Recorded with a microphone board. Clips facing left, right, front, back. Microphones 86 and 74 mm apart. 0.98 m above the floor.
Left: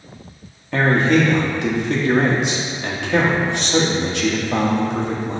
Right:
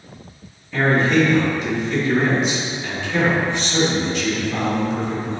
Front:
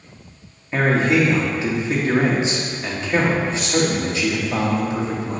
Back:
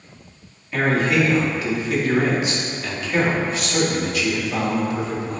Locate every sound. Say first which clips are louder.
0.7 s a man speaking: left 1 dB, front 2 dB; 60° left, 1.4 m